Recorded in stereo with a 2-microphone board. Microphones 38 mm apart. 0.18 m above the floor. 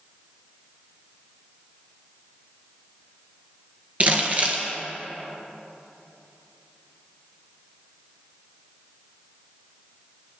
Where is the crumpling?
40° right (ahead or behind), 1.6 m.